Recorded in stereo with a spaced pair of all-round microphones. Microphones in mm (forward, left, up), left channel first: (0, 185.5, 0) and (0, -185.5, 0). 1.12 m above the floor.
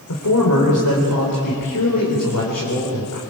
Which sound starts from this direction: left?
A man speaking, at 0.1 s.